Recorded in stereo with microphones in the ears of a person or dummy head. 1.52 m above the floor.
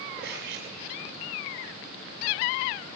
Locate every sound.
0.2 s cutlery clinking: 70° right (ahead or behind), 6.5 m